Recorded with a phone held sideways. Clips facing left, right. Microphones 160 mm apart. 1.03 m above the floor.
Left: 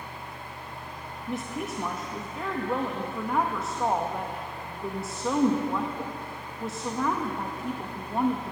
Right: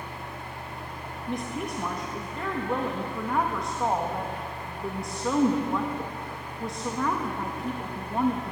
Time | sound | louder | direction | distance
0.0 | a fan | right 2 dB | 65° right (ahead or behind) | 3 m
1.3 | a woman speaking | right 1 dB | 5° left (ahead or behind) | 1.0 m